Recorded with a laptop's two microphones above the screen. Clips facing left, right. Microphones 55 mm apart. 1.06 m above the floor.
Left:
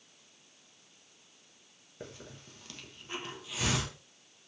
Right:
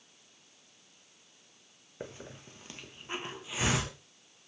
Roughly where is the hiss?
Right.